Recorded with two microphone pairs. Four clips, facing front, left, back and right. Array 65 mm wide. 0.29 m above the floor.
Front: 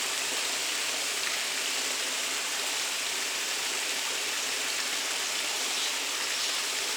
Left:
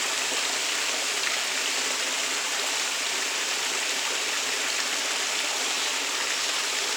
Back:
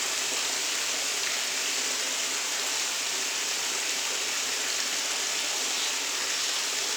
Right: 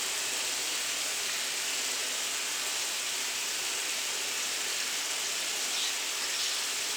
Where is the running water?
95° left, 2 m.